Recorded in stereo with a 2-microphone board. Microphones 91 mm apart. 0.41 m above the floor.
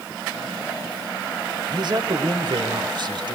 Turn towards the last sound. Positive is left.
turn(degrees=-55)  # may be behind; listen again after turning